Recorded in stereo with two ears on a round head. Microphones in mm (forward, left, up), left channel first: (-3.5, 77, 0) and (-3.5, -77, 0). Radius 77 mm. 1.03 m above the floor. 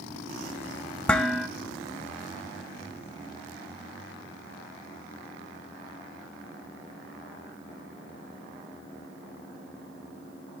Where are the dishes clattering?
5° left (ahead or behind), 0.6 m.